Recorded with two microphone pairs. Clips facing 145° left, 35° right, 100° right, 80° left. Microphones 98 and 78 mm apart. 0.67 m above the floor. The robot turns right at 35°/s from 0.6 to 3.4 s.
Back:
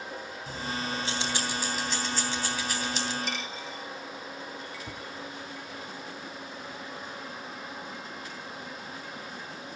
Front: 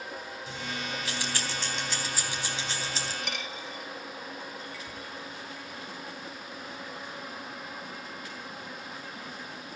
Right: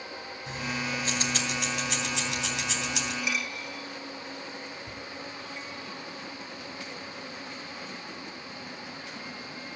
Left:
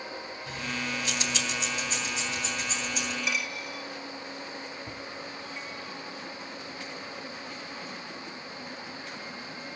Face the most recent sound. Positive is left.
turn(degrees=130)